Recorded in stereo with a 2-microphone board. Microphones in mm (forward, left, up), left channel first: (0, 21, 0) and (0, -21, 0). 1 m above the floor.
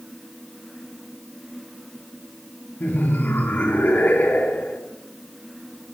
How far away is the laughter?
About 1.1 m.